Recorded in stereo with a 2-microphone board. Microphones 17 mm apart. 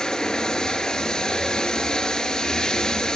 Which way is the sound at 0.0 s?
50° left (ahead or behind).